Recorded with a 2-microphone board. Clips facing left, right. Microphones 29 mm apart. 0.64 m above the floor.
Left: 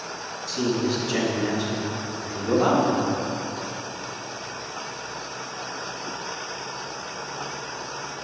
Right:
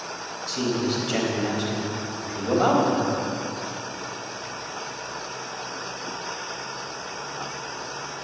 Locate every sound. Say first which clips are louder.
0.5 s a man speaking: left 1 dB; 55° right (ahead or behind), 4.5 m